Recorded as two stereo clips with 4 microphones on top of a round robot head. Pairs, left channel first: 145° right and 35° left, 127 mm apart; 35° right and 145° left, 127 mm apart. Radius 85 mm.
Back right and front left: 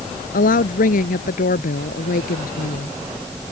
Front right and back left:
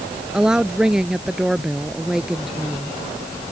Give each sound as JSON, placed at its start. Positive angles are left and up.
{"t": 0.3, "sound": "a woman speaking", "azimuth_deg": -130}